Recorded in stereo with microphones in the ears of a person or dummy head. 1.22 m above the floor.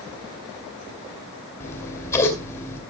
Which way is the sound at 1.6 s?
15° left (ahead or behind).